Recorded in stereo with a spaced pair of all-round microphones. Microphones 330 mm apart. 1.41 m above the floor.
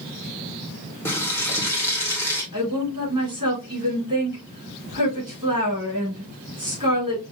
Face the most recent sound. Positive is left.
turn(degrees=-75)  # may be behind; listen again after turning